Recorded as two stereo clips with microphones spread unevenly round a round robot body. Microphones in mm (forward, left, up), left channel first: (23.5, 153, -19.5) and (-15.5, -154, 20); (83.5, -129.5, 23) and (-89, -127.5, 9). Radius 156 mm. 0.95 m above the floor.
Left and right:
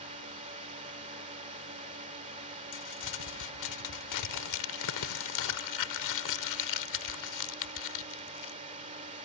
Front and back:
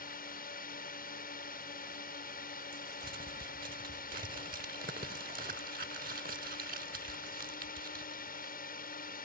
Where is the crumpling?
115° left.